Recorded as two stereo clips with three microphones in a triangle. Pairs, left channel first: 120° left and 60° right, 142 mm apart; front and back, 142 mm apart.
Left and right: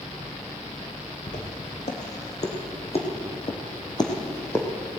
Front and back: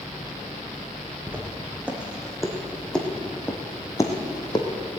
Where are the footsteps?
105° left, 3 m; by 4.7 s 50° left, 2 m.